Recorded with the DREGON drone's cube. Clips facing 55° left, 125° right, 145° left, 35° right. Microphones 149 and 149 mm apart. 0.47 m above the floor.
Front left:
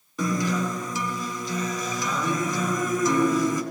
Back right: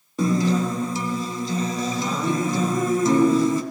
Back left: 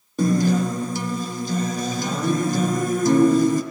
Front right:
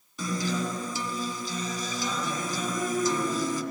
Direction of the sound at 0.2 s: 175° left.